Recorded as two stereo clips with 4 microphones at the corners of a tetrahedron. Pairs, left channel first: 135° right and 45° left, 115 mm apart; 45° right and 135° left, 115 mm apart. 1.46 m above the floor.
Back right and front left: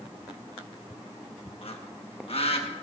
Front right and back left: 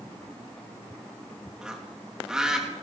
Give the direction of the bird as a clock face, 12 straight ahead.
5 o'clock.